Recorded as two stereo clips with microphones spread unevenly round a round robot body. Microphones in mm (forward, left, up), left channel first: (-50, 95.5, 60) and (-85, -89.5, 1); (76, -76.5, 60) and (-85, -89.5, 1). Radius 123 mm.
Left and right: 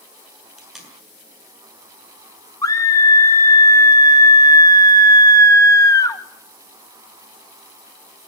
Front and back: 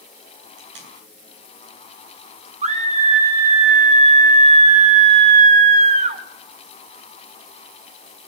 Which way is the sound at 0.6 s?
170° left.